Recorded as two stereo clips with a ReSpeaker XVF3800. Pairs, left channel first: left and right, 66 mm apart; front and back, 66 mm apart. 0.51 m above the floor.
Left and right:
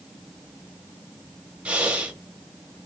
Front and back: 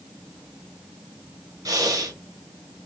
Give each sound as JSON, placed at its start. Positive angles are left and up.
{"t": 1.6, "sound": "breathing", "azimuth_deg": -160, "distance_m": 0.8}